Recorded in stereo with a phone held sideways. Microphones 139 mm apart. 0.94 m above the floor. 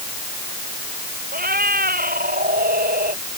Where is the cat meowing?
85° right; by 3.2 s 90° right.